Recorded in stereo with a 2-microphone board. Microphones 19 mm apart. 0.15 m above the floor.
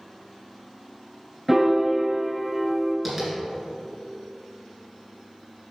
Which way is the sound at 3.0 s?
5° right (ahead or behind).